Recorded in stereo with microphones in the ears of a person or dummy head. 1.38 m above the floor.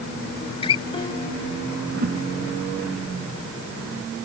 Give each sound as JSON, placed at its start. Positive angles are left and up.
{"t": 0.4, "sound": "a guitar", "side_deg": 20}
{"t": 1.9, "sound": "a whoosh", "side_deg": -60}